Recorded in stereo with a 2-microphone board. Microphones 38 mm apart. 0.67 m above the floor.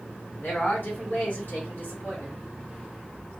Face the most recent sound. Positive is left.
turn(degrees=55)  # may be behind; listen again after turning